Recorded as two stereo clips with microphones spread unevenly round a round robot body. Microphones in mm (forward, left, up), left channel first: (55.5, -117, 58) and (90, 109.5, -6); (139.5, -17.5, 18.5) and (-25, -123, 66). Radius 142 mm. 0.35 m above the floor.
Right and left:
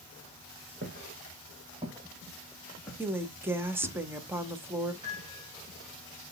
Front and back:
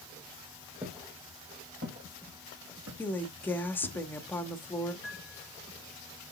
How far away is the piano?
About 2 m.